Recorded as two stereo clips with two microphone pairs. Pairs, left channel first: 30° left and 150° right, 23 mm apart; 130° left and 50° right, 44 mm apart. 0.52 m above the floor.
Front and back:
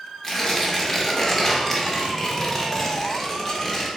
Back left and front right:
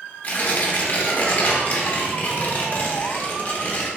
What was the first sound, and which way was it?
Tearing paper, 100° left.